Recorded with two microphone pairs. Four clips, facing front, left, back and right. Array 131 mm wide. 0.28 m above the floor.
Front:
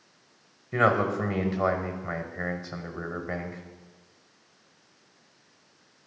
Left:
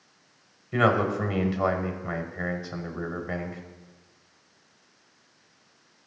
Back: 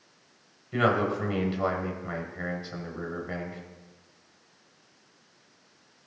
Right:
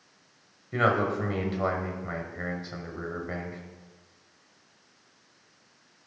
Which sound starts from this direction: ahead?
A man speaking, at 0.7 s.